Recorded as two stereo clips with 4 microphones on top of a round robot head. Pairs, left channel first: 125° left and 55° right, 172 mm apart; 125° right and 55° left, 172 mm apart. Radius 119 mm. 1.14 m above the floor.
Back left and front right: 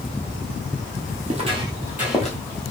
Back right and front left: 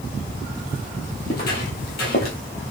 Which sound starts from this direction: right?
Footsteps, at 1.2 s.